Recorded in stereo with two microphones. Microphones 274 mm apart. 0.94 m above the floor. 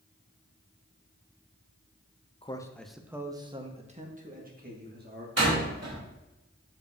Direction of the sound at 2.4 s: 20° left (ahead or behind).